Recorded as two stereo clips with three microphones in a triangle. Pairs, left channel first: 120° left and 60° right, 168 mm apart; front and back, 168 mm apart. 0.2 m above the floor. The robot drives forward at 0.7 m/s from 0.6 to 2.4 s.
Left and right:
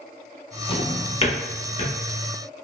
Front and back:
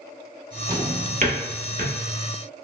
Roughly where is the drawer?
Behind left.